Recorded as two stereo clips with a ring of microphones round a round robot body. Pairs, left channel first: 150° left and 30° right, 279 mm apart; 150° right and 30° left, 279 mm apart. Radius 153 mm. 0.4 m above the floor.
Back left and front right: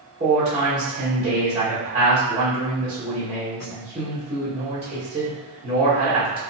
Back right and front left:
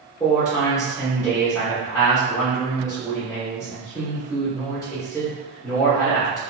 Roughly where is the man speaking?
Right.